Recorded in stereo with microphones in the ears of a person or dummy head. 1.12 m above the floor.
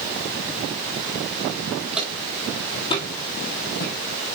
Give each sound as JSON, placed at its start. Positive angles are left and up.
{"t": 1.9, "sound": "footsteps", "side_deg": -5, "distance_m": 2.0}